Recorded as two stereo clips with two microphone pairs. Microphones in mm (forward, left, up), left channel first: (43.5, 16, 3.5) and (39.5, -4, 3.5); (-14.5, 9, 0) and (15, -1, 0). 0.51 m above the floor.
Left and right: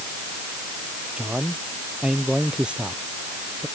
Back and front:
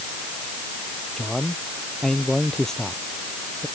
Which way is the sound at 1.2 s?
130° right.